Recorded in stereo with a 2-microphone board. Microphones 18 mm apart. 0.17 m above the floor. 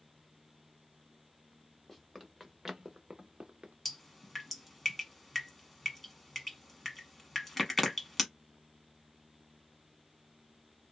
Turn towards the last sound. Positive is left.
turn(degrees=10)  # may be behind; listen again after turning